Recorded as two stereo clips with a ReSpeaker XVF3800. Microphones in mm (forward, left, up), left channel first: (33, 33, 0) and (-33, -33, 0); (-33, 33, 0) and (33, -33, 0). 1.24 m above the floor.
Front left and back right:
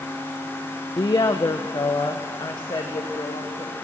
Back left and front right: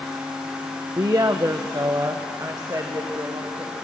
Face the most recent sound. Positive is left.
turn(degrees=5)